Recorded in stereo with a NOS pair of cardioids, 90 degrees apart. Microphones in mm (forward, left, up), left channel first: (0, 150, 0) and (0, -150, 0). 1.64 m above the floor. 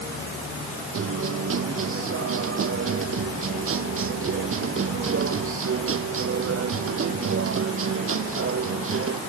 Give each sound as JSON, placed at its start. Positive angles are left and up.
{"t": 0.9, "sound": "a guitar", "azimuth_deg": -45}